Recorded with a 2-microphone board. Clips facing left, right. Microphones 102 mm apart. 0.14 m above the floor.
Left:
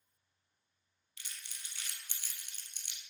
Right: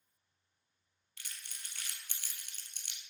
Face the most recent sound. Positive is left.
turn(degrees=-55)  # may be behind; listen again after turning